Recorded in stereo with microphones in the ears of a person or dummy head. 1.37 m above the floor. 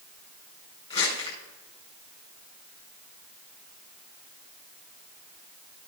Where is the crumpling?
40° left (ahead or behind), 4.5 m.